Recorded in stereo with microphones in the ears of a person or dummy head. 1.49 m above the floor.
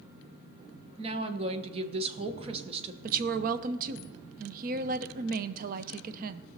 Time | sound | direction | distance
1.0 | a woman speaking | 30° right (ahead or behind) | 1.1 m
3.0 | a woman speaking | 45° right (ahead or behind) | 0.7 m